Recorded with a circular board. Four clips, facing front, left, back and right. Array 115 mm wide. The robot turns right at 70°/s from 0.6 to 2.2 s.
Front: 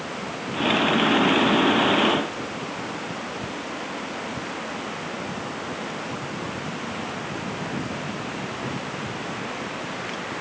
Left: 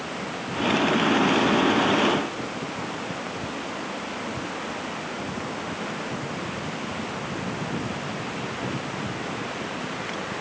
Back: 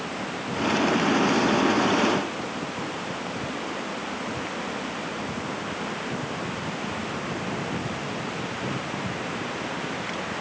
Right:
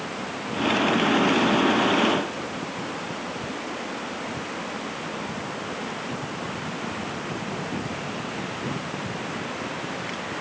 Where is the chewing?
I don't hear chewing.